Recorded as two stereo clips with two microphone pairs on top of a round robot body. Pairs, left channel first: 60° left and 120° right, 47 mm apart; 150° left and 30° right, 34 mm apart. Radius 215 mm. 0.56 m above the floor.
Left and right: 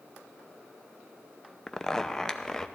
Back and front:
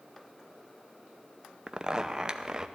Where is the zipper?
10° right, 0.8 m.